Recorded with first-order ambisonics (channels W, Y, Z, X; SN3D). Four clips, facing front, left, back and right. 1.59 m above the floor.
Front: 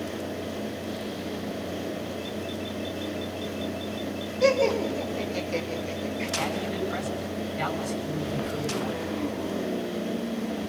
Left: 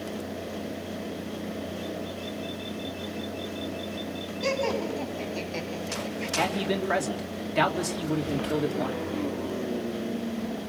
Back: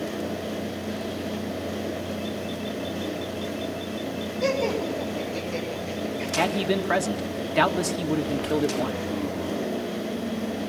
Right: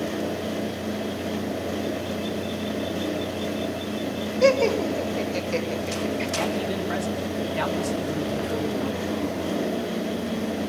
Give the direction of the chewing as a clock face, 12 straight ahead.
No chewing in this recording.